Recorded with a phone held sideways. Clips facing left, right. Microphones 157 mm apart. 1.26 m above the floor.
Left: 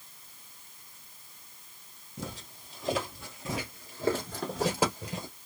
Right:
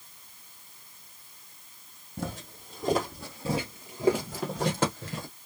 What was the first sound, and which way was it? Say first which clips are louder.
Footsteps: right 5 dB; 50° right (ahead or behind).